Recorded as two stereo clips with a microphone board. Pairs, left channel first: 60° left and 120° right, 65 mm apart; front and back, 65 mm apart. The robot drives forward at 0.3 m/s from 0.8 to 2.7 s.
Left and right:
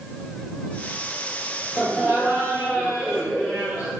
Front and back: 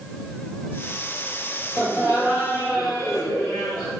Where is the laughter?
175° right, 1.7 m.